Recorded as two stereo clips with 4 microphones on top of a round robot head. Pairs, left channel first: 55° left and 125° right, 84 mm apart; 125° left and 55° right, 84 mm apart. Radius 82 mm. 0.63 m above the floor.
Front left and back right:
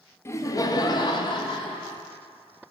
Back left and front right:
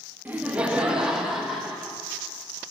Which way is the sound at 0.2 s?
10° left.